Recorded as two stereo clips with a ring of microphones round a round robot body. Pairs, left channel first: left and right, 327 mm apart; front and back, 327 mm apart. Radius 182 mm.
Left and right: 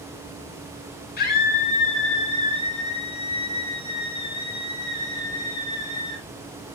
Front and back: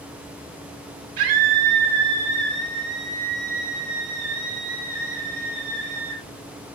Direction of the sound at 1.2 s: 155° left.